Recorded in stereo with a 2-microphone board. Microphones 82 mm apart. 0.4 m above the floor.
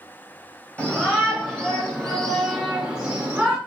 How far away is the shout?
About 2 m.